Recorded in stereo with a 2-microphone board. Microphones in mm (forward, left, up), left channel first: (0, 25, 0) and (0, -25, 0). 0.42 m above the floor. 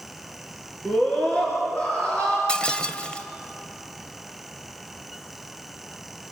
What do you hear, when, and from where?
0.8 s a scream: 30° left (ahead or behind), 5 m; by 2.4 s 20° left (ahead or behind), 5.5 m
2.5 s breaking glass: 20° left (ahead or behind), 1.2 m